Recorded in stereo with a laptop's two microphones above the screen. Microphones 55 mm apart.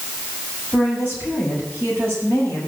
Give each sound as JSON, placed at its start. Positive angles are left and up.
{"t": 0.7, "sound": "a woman speaking", "side_deg": -40, "distance_m": 8.0}